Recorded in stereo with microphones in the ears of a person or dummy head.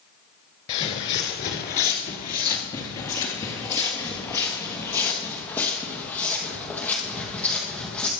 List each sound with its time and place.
0.7 s footsteps: 30° left (ahead or behind), 1.9 m; by 8.1 s 5° left (ahead or behind), 5 m